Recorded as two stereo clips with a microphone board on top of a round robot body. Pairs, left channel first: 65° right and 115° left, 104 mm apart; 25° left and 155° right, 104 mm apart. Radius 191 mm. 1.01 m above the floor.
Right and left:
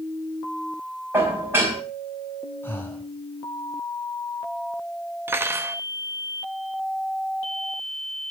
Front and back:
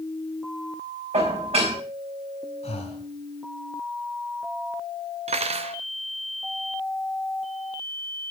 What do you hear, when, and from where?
1.1 s dishes clattering: straight behind, 5 m
2.6 s breathing: 5° left, 2.5 m
5.3 s cutlery clinking: straight behind, 0.5 m